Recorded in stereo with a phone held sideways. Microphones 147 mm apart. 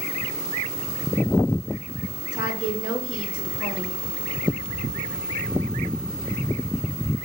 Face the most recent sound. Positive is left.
turn(degrees=-5)  # may be behind; listen again after turning